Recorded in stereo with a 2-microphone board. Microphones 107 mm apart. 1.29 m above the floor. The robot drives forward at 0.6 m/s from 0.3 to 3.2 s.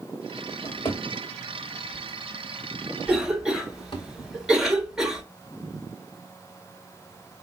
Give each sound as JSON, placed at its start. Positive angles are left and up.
{"t": 0.6, "sound": "a drawer", "side_deg": 45, "distance_m": 1.8}
{"t": 3.1, "sound": "a cough", "side_deg": -5, "distance_m": 1.3}